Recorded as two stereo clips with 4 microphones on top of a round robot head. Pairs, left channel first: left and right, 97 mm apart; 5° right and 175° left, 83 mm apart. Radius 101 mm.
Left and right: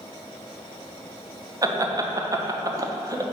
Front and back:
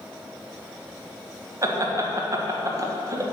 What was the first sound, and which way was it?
Laughter, 140° right.